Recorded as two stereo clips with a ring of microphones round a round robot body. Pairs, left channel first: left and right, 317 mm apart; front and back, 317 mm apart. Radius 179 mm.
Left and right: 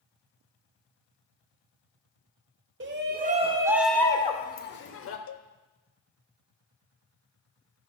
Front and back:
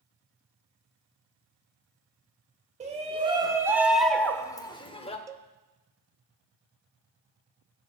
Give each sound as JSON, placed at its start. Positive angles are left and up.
{"t": 2.8, "sound": "a shout", "azimuth_deg": -120, "distance_m": 1.0}
{"t": 5.3, "sound": "a cowbell", "azimuth_deg": 100, "distance_m": 0.6}